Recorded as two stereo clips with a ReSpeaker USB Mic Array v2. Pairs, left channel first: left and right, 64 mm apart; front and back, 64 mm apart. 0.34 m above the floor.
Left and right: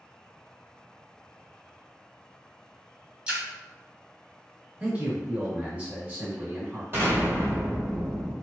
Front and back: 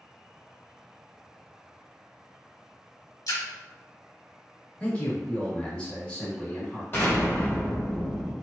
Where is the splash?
15° right, 0.9 m.